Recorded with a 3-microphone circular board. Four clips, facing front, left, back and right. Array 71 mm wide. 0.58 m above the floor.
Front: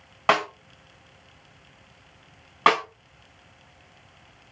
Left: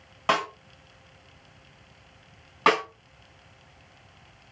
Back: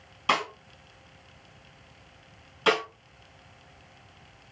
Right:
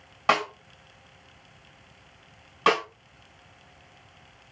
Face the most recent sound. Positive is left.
turn(degrees=15)